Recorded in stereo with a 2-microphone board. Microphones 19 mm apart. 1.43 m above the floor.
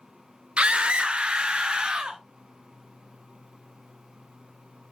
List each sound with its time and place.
0.6 s a scream: 75° right (ahead or behind), 0.6 m; by 2.2 s 45° right (ahead or behind), 1.4 m